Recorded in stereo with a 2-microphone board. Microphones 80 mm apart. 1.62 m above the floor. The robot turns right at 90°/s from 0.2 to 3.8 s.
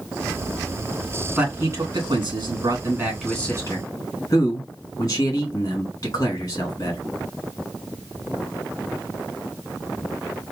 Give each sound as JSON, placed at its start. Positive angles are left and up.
{"t": 1.4, "sound": "a man speaking", "azimuth_deg": -170, "distance_m": 2.5}